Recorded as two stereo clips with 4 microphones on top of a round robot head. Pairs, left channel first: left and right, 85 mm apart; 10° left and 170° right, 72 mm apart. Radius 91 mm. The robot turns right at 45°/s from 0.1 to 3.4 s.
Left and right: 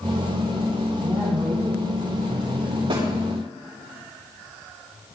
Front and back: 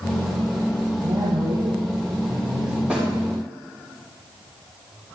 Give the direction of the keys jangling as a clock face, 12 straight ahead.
I don't hear keys jangling.